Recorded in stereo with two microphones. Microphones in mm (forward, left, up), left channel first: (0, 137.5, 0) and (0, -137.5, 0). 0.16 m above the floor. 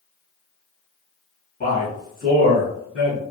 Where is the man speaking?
30° left (ahead or behind), 1.9 m.